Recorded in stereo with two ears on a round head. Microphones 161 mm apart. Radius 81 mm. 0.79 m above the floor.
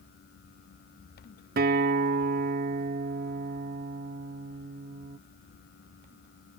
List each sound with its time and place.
1.6 s a guitar: 55° right (ahead or behind)